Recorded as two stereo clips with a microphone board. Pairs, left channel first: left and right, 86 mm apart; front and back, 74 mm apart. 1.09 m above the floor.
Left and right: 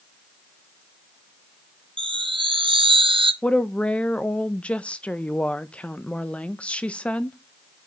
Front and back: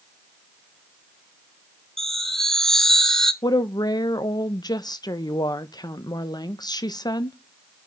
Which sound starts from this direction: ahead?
A woman speaking, at 3.4 s.